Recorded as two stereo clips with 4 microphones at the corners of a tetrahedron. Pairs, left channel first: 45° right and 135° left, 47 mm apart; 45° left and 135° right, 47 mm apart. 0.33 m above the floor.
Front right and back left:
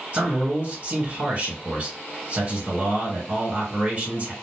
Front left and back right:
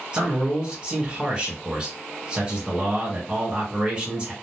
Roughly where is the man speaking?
Behind.